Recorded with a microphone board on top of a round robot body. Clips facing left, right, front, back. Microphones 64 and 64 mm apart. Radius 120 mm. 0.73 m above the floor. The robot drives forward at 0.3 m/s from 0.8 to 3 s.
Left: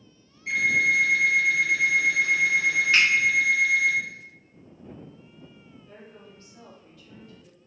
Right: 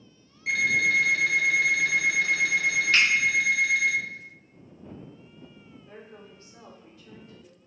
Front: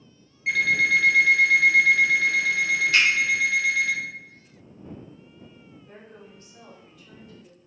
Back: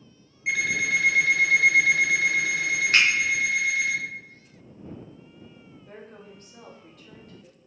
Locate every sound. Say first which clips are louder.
0.5 s an alarm clock: left 1 dB, front 4 dB; 100° right, 1.7 m; by 3.9 s 120° right, 1.9 m
2.9 s a finger snap: left 1 dB, back 1 dB; 155° left, 1.5 m
5.9 s a woman speaking: right 1 dB, back 3 dB; 150° right, 1.3 m